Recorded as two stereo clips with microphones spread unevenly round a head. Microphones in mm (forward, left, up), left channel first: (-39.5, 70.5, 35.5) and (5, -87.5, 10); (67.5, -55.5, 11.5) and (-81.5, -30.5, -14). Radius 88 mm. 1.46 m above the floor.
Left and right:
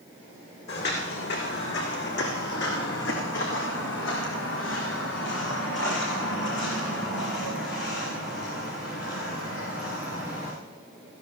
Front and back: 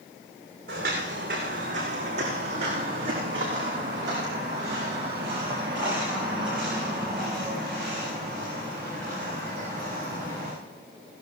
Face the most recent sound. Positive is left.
turn(degrees=65)